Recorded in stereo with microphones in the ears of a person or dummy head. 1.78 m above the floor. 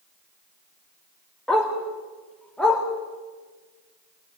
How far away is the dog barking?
About 1.7 m.